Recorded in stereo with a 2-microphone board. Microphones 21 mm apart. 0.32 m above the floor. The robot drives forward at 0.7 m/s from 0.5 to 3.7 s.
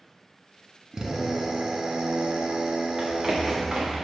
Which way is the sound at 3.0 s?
15° right (ahead or behind).